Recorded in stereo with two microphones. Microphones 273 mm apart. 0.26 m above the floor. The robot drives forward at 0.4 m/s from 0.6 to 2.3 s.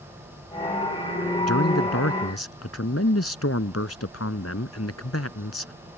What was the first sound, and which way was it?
A man speaking, 65° left (ahead or behind).